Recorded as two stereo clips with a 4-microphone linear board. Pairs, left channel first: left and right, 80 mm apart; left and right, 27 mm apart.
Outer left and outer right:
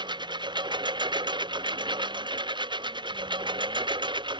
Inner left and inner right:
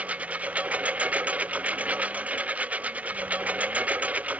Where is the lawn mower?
70° right (ahead or behind); by 4.4 s 80° right.